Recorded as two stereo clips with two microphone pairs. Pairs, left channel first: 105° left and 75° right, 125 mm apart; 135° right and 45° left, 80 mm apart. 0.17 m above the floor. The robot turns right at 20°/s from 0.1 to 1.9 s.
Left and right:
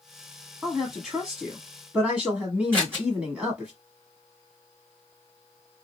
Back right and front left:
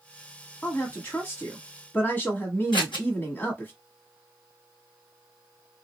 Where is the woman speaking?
165° right, 1.1 m; by 3.7 s 135° right, 1.1 m.